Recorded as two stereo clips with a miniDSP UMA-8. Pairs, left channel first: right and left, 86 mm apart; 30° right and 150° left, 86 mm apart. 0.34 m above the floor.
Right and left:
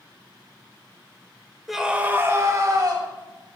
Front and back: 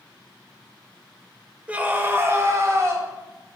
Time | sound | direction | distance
1.7 | a scream | straight behind | 1.1 m